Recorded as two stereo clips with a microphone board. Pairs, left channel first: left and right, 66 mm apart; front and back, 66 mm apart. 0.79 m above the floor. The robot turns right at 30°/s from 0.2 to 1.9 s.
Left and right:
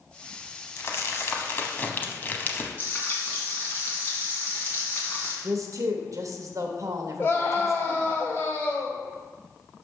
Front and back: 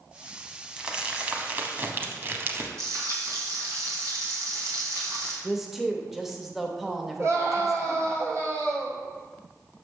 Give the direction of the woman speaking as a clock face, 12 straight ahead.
3 o'clock.